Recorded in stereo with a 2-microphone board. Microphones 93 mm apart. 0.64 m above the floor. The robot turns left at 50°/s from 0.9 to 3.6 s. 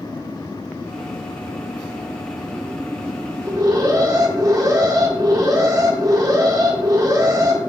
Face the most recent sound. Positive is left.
turn(degrees=-45)  # may be behind; listen again after turning